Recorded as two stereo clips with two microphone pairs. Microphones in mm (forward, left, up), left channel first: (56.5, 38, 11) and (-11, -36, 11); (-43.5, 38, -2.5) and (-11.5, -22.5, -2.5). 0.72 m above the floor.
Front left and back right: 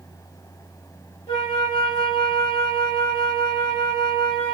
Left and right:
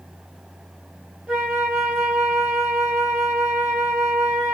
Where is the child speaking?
I don't hear a child speaking.